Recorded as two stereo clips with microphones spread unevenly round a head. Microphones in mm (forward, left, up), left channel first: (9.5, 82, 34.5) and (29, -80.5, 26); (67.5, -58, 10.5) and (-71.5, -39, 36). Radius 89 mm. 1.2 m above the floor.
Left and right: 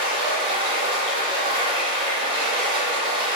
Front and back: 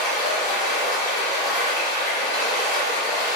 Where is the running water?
25° right, 1.7 m.